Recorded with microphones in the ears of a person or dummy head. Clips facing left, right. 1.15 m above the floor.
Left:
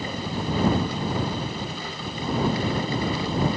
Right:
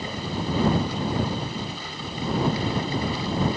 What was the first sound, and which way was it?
Only background noise.